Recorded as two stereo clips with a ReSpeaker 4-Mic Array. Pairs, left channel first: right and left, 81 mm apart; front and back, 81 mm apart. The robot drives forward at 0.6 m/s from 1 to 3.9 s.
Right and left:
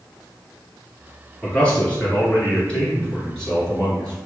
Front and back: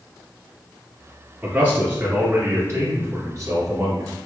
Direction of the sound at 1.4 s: 130° right.